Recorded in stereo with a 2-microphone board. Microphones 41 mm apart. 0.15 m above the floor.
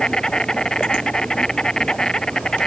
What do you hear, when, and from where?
0.0 s an insect: 15° left (ahead or behind)